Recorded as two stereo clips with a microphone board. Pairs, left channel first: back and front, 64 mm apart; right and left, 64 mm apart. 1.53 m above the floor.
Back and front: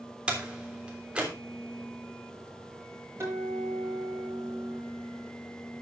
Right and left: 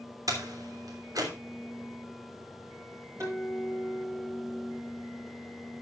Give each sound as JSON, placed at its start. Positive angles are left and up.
{"t": 0.3, "sound": "a door slam", "azimuth_deg": 70, "distance_m": 3.0}
{"t": 3.2, "sound": "a guitar", "azimuth_deg": 50, "distance_m": 8.5}